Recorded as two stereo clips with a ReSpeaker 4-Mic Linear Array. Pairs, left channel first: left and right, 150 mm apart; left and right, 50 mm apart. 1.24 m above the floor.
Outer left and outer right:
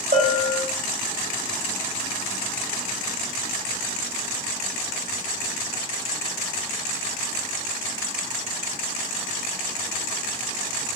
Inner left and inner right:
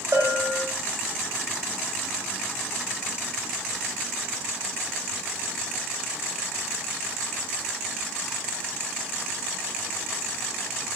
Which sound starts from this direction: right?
A bell, at 0.1 s.